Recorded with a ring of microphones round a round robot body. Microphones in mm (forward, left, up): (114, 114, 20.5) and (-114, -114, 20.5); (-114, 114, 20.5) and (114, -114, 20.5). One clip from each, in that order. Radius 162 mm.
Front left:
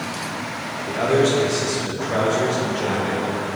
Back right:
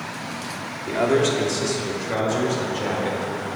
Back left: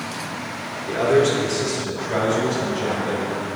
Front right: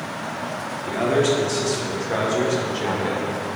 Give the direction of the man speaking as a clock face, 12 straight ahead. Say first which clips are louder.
Front left 1 dB, back left 2 dB; 4 o'clock.